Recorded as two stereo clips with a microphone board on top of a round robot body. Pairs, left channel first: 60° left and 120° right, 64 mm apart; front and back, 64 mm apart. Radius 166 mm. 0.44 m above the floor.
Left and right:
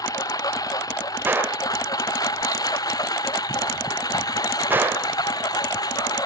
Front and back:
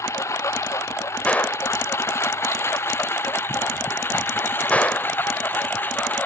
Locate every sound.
0.0 s a lawn mower: 40° left; by 6.2 s 60° left
1.2 s a gunshot: 65° right